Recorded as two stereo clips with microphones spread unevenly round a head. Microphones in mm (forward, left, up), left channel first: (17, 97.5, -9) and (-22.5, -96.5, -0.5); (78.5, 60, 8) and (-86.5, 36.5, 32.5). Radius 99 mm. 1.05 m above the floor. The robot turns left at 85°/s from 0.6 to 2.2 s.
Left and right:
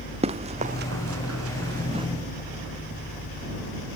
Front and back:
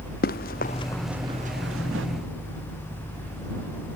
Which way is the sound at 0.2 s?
40° right.